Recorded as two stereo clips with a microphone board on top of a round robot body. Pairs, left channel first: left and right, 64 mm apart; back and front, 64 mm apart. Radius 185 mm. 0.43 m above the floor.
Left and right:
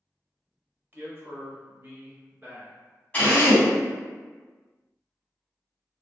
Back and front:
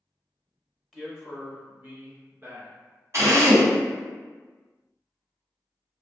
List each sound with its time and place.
0.9 s a man speaking: 85° right, 1.2 m; by 2.8 s 30° right, 1.8 m
3.1 s a drill: 25° left, 1.8 m